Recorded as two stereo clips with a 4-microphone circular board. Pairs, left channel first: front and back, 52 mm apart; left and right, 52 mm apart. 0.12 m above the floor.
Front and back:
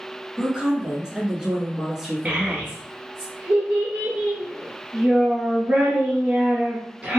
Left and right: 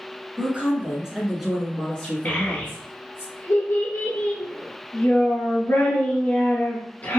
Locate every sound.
0.4 s a woman speaking: 120° right, 1.3 m; by 3.2 s 90° left, 1.5 m
2.2 s a child speaking: 120° left, 1.5 m